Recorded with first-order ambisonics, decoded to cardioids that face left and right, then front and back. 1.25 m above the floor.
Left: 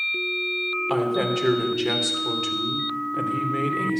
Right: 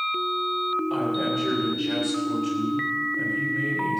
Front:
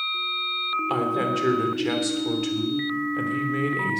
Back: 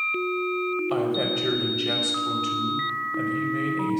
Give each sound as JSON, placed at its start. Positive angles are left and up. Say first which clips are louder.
{"t": 0.9, "sound": "a woman speaking", "louder": "left 2 dB, front 1 dB", "azimuth_deg": 45, "distance_m": 3.5}